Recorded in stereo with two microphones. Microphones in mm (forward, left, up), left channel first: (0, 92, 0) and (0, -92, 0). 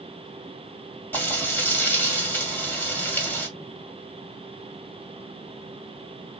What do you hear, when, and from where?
1.1 s frying: 10° left (ahead or behind), 1.8 m